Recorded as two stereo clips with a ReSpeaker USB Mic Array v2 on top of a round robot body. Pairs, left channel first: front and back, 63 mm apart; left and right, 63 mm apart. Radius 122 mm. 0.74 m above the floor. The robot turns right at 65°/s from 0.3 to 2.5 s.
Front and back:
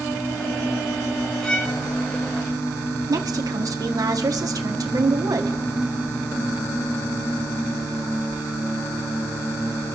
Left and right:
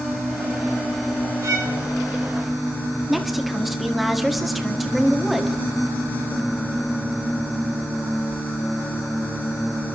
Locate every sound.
1.4 s a violin: 80° right, 3 m; by 1.8 s 55° right, 3 m
3.1 s a woman speaking: straight behind, 1.7 m